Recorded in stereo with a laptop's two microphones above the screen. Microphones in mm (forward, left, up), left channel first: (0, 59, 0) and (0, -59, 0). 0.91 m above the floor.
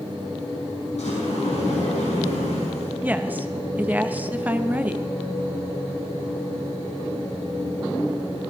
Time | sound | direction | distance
1.0 | a sliding door | 70° left (ahead or behind) | 5.5 m
3.0 | a woman speaking | 15° right (ahead or behind) | 0.5 m